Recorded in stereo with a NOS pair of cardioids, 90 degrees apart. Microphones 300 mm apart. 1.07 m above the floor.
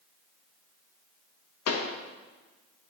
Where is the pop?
60° left, 1.1 m.